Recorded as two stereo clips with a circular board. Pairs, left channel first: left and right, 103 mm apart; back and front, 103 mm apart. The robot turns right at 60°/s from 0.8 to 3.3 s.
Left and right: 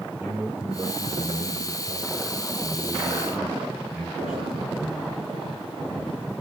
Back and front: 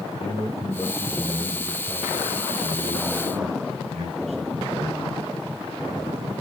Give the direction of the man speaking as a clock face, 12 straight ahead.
5 o'clock.